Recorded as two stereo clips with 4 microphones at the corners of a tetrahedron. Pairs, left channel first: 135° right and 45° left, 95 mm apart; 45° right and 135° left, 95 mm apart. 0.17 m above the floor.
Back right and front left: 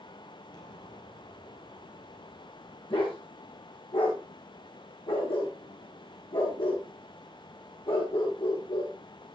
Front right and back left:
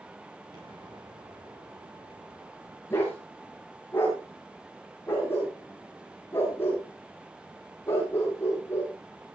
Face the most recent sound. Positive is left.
turn(degrees=-110)